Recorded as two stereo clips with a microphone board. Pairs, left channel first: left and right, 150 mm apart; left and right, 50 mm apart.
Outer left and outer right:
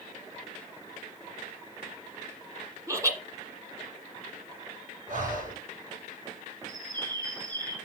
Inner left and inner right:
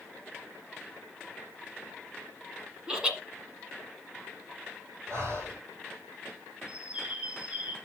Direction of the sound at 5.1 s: 60° right (ahead or behind).